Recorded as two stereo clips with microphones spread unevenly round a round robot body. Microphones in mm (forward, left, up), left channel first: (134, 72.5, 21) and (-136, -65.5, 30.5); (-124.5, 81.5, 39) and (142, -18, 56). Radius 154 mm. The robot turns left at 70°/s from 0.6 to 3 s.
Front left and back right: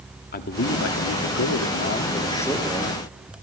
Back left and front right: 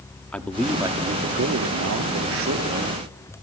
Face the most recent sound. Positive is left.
turn(degrees=-90)